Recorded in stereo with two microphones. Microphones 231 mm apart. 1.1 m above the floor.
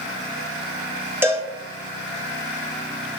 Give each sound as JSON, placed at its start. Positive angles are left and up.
{"t": 1.2, "sound": "a cowbell", "side_deg": -10, "distance_m": 0.7}